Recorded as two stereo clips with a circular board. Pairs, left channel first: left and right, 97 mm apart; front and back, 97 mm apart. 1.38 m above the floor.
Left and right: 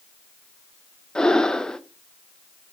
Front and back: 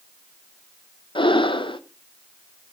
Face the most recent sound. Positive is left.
turn(degrees=10)